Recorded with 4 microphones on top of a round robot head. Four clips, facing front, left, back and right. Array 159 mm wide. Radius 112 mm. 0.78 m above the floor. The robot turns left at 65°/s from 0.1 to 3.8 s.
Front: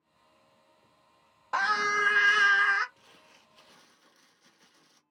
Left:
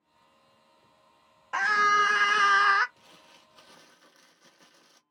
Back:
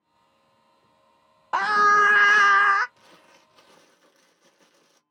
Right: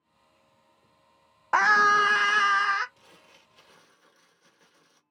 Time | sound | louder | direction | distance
1.5 | a scream | right 3 dB, back 9 dB | 125° right | 0.6 m
3.0 | crumpling | even, back 5 dB | 175° right | 1.0 m